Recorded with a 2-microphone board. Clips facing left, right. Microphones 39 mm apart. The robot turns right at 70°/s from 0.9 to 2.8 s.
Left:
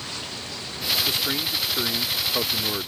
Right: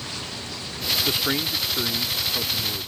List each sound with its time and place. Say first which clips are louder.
1.1 s a man speaking: right 1 dB; 45° right; by 2.9 s 80° left